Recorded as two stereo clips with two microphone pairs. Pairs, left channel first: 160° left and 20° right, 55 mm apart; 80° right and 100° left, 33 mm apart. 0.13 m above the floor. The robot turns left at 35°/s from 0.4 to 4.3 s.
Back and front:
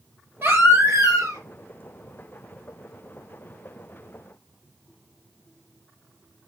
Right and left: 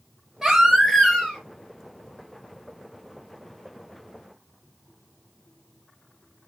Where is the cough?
No cough in this recording.